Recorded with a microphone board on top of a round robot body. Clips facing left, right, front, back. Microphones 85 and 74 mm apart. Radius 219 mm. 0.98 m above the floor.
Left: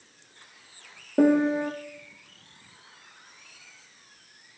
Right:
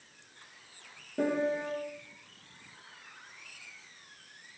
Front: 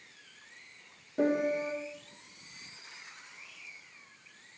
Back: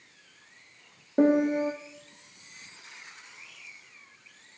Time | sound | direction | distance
1.2 | a piano | 130° left | 1.0 m